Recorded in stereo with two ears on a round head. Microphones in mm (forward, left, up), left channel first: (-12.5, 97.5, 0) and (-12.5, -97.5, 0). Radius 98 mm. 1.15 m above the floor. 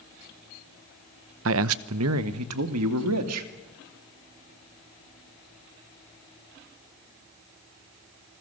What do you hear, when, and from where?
1.4 s a man speaking: 65° right (ahead or behind), 0.8 m; by 3.5 s 85° right, 2.5 m